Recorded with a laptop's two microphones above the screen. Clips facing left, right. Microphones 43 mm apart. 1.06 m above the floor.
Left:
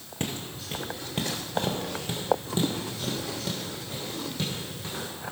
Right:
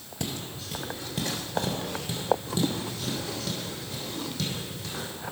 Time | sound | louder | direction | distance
0.2 | footsteps | left 1 dB | 35° left (ahead or behind) | 1.4 m